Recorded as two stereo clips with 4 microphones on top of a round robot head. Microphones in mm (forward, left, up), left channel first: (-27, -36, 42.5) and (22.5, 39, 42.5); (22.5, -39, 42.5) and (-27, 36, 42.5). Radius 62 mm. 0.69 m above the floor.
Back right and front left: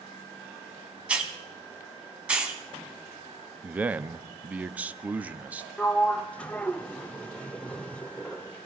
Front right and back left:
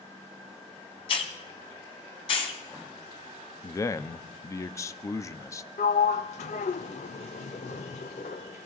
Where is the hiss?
20° right, 2 m.